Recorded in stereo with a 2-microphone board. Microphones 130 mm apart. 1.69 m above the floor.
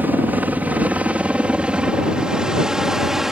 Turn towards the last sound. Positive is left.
turn(degrees=-5)  # may be behind; listen again after turning